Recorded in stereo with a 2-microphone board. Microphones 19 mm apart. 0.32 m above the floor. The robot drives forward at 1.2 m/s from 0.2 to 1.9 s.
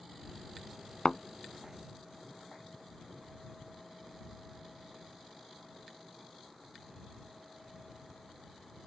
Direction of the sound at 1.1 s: 30° left (ahead or behind).